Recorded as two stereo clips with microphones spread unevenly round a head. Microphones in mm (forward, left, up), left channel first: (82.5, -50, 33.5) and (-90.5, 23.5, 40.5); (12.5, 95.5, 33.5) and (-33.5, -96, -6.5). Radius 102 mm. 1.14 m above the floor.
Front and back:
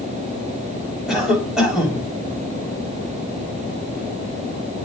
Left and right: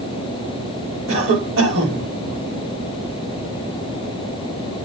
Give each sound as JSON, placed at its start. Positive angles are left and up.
{"t": 1.1, "sound": "a cough", "azimuth_deg": -115, "distance_m": 3.5}